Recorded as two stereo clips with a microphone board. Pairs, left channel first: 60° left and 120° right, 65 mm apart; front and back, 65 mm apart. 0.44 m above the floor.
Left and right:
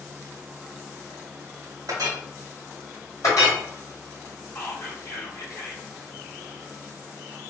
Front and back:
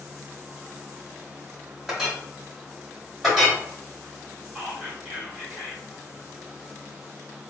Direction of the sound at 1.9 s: 95° right.